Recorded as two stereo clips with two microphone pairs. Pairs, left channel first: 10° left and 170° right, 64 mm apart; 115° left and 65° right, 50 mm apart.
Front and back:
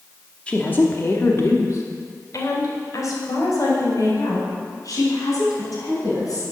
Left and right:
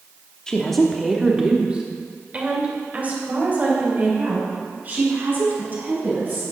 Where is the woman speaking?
60° left, 1.0 m; by 6.4 s 15° right, 5.5 m.